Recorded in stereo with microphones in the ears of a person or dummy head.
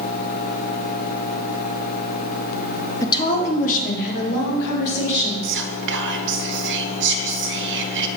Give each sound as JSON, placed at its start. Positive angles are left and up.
{"t": 3.0, "sound": "a woman speaking", "side_deg": 20, "distance_m": 0.5}
{"t": 5.4, "sound": "whispering", "side_deg": -60, "distance_m": 0.5}